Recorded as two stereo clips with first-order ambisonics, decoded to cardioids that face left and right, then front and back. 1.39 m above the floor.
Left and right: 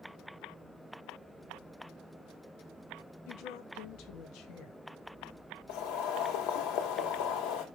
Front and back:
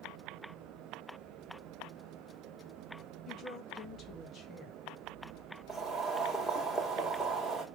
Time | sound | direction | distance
3.3 | a woman speaking | 60° left | 1.8 m
5.7 | boiling | 90° left | 2.5 m